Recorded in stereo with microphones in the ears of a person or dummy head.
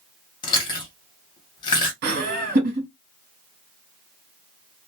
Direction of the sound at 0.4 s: 25° left (ahead or behind).